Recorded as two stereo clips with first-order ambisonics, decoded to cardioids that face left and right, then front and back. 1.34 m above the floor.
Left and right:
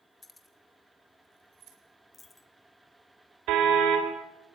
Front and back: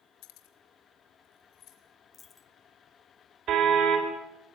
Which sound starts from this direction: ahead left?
A dropped coin, at 2.1 s.